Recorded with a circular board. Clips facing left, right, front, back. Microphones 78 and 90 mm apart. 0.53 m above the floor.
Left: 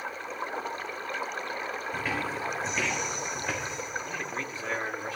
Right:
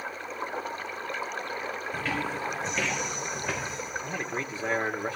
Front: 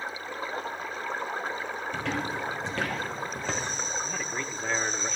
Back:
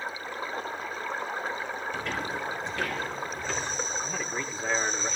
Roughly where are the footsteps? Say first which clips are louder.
Right 1 dB, front 3 dB; ahead.